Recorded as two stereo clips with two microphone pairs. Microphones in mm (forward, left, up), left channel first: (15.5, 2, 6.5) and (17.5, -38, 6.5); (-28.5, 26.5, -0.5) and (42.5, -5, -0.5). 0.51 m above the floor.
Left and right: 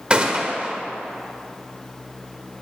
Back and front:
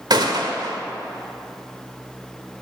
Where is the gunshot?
25° right, 1.5 m.